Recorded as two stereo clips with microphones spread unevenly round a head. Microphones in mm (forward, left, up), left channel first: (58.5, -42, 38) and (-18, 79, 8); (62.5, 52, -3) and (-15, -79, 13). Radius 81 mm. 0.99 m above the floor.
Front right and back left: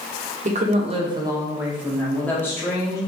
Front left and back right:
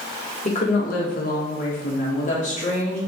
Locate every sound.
0.5 s a woman speaking: 105° left, 1.0 m; by 3.0 s 15° left, 1.5 m